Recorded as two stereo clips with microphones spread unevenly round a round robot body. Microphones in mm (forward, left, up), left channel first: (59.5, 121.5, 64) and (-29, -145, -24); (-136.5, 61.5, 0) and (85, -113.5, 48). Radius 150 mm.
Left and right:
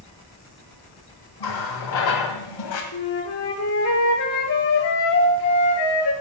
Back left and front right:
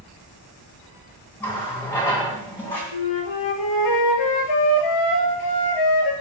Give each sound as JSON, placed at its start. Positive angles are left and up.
{"t": 1.4, "sound": "a running tap", "azimuth_deg": 60, "distance_m": 2.0}
{"t": 2.9, "sound": "a flute", "azimuth_deg": 115, "distance_m": 1.7}